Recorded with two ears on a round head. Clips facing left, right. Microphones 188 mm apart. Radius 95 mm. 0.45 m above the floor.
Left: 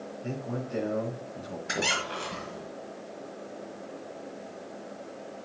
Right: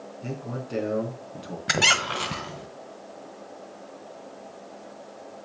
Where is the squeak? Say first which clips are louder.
Right 5 dB; 75° right (ahead or behind), 1.3 m.